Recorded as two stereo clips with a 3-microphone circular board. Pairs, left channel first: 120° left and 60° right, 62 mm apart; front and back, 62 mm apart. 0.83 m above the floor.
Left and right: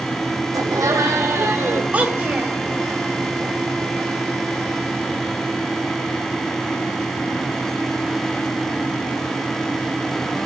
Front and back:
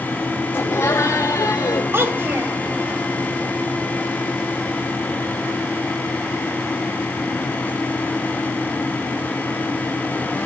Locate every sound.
0.5 s laughter: 50° right, 2 m; by 1.8 s 30° right, 3 m
1.9 s a child speaking: 125° right, 2.5 m